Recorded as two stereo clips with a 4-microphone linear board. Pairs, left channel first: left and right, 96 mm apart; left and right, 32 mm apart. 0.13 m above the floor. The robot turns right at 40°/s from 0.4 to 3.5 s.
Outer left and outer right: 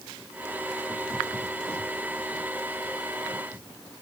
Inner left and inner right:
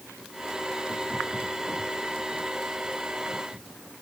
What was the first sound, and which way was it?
Only background noise.